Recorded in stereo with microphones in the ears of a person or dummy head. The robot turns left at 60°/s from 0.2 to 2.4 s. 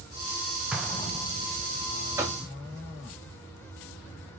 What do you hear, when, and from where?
0.7 s an explosion: 5° right (ahead or behind), 0.8 m; by 1.6 s 45° left (ahead or behind), 0.8 m
2.2 s knocking: 15° right (ahead or behind), 0.8 m; by 2.4 s 25° right (ahead or behind), 0.8 m